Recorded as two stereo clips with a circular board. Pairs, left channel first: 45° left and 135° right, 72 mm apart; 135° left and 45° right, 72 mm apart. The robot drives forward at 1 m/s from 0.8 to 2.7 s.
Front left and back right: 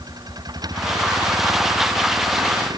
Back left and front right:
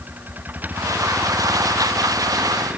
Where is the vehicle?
110° right; by 2.8 s 115° right.